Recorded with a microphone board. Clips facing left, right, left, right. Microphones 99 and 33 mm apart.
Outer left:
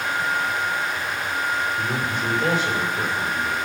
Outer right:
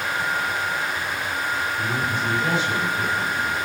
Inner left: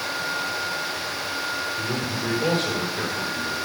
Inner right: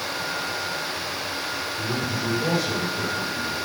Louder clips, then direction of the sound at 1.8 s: Even, even; 50° left (ahead or behind).